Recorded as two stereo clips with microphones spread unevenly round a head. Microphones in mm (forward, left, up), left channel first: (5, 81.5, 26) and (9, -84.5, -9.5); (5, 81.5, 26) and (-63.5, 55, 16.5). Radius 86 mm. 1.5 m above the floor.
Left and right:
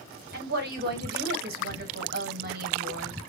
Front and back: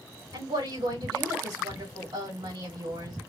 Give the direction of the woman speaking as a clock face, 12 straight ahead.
4 o'clock.